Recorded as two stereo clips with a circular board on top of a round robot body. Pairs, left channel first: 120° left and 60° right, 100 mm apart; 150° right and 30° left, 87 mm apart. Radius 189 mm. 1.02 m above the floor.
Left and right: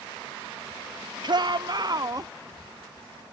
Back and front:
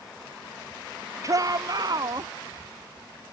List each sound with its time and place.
1.2 s a shout: 20° right; by 2.3 s 5° right